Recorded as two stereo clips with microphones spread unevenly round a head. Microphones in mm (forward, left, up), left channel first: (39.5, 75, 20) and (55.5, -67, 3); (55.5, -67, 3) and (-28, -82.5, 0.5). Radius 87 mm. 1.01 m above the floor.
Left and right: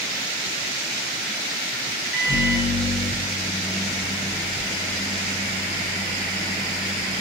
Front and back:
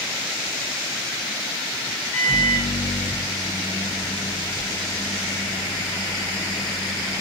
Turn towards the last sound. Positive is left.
turn(degrees=-5)